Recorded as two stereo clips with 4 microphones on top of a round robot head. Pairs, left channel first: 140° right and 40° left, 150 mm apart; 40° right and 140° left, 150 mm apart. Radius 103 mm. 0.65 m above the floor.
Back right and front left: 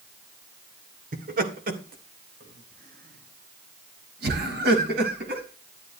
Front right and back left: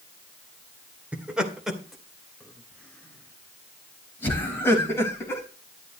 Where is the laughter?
60° left, 2.5 m; by 5.4 s 35° left, 5 m.